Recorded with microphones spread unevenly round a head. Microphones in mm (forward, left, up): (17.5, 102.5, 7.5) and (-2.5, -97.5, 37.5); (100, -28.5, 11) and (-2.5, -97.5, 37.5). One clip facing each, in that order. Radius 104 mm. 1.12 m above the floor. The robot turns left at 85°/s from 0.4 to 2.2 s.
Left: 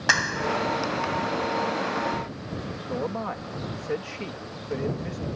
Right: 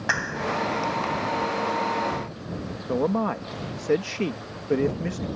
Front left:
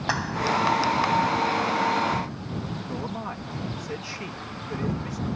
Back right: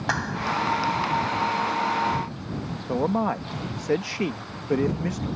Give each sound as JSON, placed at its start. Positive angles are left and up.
{"t": 0.1, "sound": "a clap", "azimuth_deg": 125}
{"t": 2.9, "sound": "a man speaking", "azimuth_deg": -130}